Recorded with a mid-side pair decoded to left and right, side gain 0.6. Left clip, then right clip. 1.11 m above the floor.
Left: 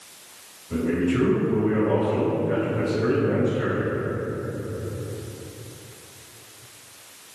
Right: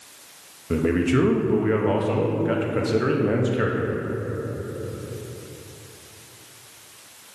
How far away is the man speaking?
About 1.2 m.